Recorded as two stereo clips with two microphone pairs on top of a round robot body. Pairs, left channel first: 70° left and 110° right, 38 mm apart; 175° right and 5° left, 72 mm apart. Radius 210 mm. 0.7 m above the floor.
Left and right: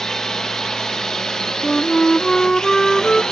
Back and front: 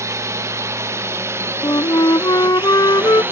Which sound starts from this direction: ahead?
A drone, at 0.0 s.